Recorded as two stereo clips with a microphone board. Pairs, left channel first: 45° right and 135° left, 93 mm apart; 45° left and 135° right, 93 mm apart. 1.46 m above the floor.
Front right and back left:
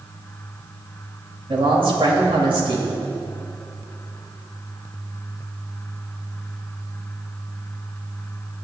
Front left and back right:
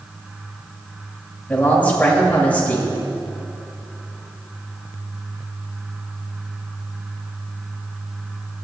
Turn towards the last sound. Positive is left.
turn(degrees=115)